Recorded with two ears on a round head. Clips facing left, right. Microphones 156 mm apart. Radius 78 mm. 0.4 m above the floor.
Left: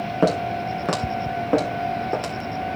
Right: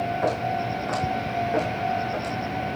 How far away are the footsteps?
About 4.5 m.